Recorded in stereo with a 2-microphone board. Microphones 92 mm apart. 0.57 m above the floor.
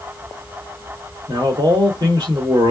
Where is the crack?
I don't hear a crack.